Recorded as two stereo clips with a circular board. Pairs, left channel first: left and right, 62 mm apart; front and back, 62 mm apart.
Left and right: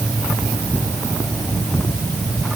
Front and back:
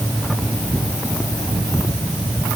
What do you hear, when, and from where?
Only background noise.